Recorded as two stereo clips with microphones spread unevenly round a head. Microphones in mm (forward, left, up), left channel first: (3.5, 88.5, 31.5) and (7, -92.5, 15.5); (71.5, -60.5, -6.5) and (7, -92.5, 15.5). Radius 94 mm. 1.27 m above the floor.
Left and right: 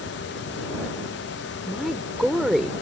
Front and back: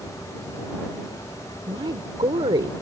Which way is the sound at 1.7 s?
Straight behind.